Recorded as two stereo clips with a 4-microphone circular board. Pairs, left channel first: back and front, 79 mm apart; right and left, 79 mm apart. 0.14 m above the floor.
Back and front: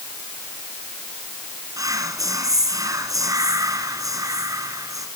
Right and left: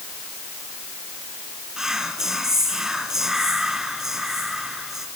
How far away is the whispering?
About 2 m.